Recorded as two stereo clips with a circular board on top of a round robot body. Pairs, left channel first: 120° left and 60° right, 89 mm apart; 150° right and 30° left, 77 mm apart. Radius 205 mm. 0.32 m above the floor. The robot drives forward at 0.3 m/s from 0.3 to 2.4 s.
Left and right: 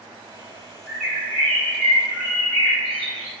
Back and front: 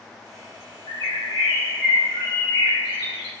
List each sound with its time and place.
0.9 s a bird: 150° right, 2.5 m; by 3.3 s 155° right, 3 m